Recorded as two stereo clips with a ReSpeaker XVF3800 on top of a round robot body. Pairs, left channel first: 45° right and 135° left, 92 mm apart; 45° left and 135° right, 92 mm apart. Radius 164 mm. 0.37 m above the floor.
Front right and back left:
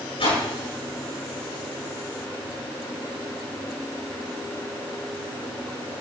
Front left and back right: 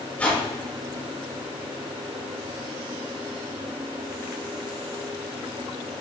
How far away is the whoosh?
About 6 m.